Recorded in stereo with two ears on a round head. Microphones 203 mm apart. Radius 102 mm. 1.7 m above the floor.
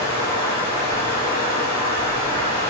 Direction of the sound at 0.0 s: 45° left (ahead or behind).